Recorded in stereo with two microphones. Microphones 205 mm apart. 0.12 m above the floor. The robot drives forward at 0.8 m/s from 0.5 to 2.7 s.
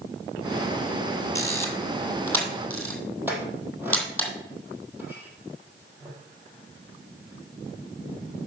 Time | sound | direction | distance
1.4 | a camera shutter | 15° left (ahead or behind) | 1.8 m
3.3 | a clink | 10° right (ahead or behind) | 3 m